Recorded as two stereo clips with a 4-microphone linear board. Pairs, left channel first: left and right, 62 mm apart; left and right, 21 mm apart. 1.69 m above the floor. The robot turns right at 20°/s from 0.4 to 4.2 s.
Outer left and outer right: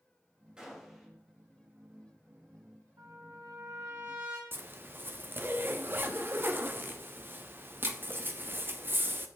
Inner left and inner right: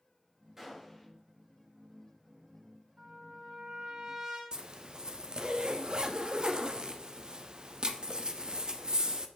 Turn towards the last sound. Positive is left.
turn(degrees=-35)  # may be behind; listen again after turning